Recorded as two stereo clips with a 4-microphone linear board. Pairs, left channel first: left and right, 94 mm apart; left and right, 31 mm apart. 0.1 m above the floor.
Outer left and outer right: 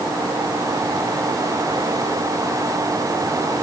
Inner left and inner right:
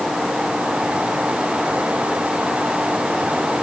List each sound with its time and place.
Only background noise.